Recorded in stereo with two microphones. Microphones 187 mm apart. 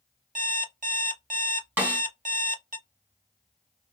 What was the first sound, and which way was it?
An alarm clock, 45° right (ahead or behind).